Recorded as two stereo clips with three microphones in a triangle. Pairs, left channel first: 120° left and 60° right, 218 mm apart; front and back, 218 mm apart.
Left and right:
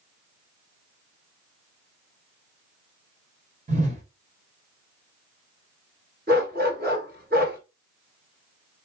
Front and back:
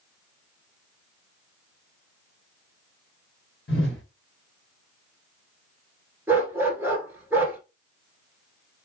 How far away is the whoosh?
About 1.0 m.